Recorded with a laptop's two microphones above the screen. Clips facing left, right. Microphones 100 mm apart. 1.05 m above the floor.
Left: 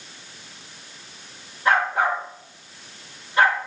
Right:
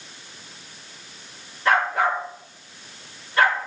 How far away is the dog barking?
About 5.5 m.